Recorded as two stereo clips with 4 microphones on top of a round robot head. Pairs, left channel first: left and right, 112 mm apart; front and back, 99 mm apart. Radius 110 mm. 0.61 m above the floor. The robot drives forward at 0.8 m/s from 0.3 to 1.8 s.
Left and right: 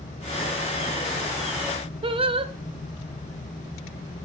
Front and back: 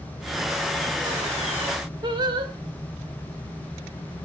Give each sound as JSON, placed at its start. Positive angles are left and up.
{"t": 2.0, "sound": "singing", "azimuth_deg": -130, "distance_m": 1.6}